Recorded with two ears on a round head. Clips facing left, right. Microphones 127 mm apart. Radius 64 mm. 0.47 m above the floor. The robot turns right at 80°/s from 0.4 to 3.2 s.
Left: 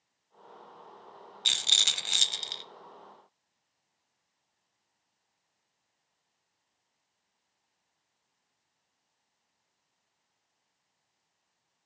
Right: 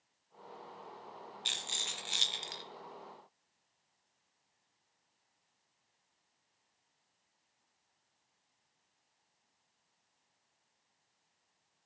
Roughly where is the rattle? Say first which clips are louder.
Left 4 dB; left.